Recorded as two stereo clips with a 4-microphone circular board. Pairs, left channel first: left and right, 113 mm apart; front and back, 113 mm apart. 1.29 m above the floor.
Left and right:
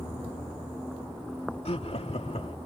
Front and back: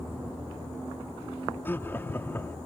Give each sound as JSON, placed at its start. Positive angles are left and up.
{"t": 1.6, "sound": "laughter", "azimuth_deg": 70}